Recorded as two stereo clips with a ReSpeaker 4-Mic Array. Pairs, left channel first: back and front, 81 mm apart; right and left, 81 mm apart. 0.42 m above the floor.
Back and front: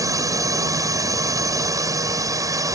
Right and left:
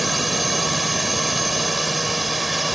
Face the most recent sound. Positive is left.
turn(degrees=0)